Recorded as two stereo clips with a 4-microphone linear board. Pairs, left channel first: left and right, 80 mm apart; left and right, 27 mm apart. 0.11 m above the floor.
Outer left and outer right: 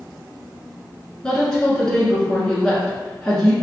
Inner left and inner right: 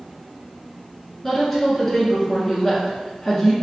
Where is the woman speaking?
10° left (ahead or behind), 1.4 m.